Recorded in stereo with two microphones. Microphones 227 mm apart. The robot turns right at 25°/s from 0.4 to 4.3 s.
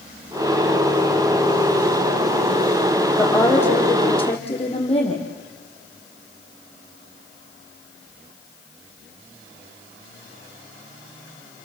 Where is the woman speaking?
Centre (ahead or behind), 5.5 m; by 5.2 s 25° left (ahead or behind), 5.5 m.